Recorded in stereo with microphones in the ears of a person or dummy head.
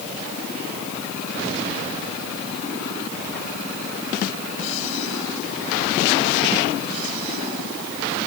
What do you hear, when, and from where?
Only background noise.